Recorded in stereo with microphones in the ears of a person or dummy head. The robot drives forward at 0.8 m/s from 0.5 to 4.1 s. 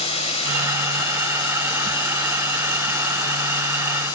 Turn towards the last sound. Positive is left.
turn(degrees=20)  # may be behind; listen again after turning